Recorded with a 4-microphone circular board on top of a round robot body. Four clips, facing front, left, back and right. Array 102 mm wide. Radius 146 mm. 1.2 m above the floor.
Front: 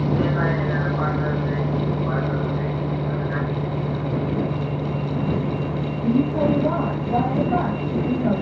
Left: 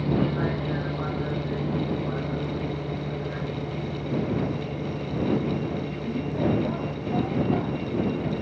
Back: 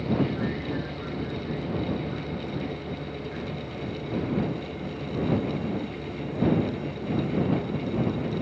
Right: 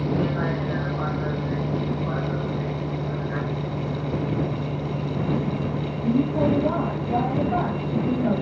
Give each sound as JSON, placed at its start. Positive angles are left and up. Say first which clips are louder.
{"t": 0.0, "sound": "a vehicle", "louder": "right 1 dB, front 5 dB", "azimuth_deg": -10}